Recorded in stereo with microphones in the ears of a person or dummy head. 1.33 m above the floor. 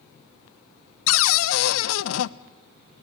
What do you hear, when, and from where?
1.1 s a cupboard door: 80° left, 0.6 m